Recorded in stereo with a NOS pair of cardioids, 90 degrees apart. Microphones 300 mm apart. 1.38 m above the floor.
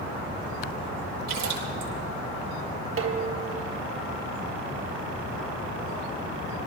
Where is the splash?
65° right, 8.5 m.